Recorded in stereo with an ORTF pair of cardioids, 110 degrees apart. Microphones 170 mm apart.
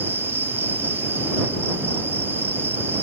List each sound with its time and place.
0.0 s an insect: 10° right